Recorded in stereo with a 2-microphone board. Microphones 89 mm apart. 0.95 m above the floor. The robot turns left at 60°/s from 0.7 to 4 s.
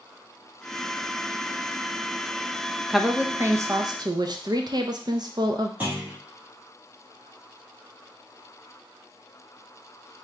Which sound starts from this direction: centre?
A clunk, at 5.8 s.